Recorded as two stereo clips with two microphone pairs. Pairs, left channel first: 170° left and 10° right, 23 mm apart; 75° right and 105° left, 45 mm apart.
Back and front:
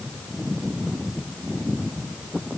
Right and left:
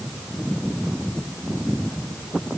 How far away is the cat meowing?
No cat meowing in this recording.